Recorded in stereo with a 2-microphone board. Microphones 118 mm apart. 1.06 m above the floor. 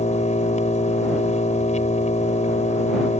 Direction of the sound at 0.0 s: 85° left.